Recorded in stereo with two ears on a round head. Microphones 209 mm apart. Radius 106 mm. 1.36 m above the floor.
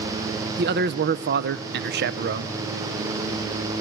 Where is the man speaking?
45° right (ahead or behind), 0.7 m.